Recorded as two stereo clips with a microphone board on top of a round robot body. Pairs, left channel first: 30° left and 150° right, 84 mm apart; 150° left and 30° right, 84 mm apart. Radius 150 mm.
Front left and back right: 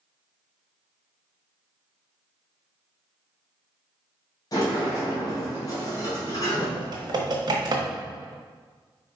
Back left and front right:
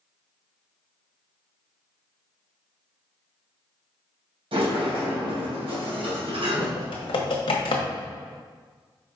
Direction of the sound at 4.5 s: 15° right.